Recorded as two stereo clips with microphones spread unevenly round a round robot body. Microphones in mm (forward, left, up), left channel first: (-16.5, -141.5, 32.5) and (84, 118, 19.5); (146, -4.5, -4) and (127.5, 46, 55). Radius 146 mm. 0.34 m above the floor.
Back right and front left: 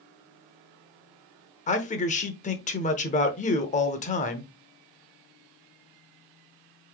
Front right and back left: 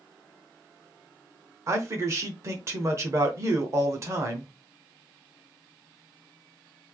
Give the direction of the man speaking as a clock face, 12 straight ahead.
4 o'clock.